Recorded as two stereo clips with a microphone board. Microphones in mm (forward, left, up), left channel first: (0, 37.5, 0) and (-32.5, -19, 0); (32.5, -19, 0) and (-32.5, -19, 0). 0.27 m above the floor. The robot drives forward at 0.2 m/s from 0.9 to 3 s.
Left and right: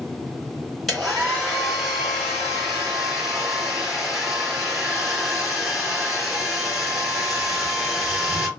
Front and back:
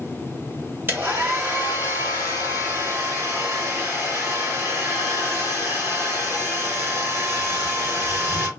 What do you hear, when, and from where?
0.9 s a hair dryer: 145° left, 1.9 m; by 8.5 s 155° left, 2 m